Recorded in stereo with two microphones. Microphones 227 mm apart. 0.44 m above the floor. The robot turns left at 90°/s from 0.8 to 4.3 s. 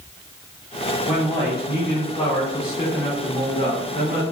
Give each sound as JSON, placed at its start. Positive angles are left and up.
{"t": 1.1, "sound": "a man speaking", "side_deg": 0, "distance_m": 1.2}